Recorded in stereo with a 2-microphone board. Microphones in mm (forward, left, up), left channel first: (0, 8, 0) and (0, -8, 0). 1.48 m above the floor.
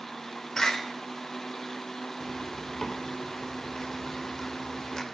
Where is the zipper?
45° left (ahead or behind), 3 m.